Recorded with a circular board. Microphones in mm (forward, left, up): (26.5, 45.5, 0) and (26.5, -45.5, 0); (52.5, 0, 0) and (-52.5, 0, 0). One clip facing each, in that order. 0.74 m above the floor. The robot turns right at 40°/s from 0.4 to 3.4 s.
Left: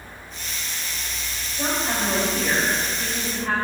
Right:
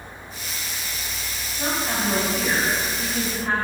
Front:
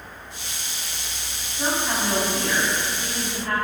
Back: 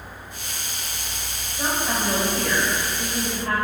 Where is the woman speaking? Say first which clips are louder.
Left 1 dB, even; 130° left, 4 m; by 3.5 s 155° right, 4 m.